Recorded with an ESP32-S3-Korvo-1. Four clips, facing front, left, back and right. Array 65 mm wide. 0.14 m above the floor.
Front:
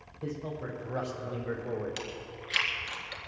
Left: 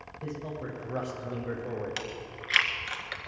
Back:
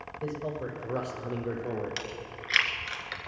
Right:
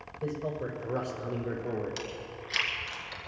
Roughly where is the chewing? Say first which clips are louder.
Left 1 dB, back 2 dB; behind left.